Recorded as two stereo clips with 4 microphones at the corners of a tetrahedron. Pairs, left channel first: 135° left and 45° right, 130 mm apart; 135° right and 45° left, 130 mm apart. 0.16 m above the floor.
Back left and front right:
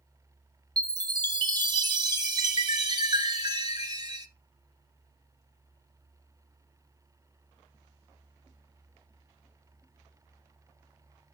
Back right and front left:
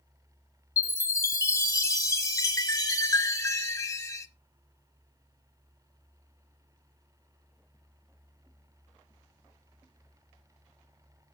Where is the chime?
80° right, 1.0 m.